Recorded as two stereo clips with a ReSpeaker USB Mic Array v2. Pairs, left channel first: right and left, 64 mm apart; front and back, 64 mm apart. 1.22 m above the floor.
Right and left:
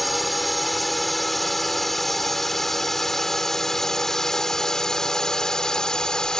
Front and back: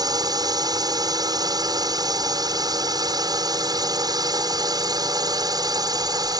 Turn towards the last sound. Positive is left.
turn(degrees=-170)